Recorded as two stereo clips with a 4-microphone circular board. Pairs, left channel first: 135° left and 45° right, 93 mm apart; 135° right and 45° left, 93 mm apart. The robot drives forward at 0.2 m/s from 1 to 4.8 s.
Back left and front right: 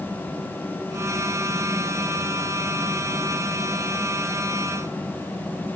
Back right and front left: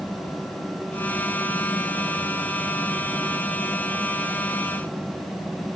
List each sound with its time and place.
Only background noise.